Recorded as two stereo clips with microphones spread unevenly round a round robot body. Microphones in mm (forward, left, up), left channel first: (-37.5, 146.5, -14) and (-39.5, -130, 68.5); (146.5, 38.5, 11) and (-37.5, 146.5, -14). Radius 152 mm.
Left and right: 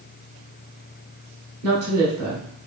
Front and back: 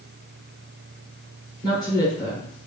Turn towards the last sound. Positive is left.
turn(degrees=-100)